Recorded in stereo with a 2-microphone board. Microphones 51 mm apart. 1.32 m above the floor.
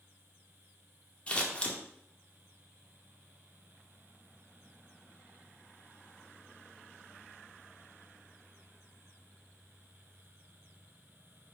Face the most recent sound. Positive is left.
turn(degrees=20)  # may be behind; listen again after turning